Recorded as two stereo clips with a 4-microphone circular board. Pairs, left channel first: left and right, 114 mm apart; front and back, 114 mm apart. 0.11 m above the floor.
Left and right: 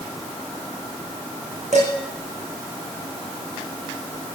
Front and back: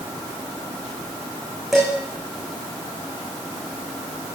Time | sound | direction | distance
1.7 | dishes clattering | 90° right | 6.5 m